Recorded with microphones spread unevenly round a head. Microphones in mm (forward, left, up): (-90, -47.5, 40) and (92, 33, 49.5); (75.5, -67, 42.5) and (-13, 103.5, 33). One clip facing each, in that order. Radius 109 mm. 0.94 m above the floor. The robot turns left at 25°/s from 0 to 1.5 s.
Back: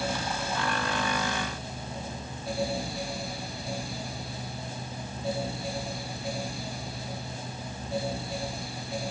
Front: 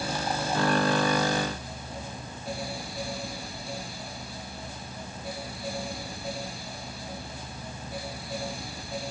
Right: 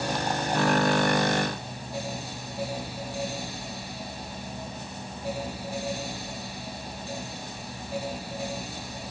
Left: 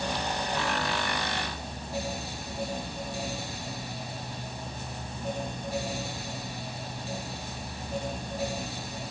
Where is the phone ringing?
I don't hear a phone ringing.